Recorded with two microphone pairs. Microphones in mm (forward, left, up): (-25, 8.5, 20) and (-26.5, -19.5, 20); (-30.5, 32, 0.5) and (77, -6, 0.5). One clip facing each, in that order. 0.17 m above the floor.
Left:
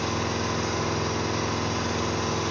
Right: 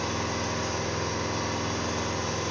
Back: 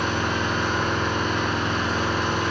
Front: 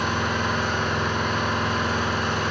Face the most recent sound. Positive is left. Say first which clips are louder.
# left 2 dB, even
turn(degrees=70)